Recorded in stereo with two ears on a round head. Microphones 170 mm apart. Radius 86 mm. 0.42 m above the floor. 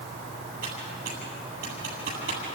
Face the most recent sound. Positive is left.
turn(degrees=-50)  # may be behind; listen again after turning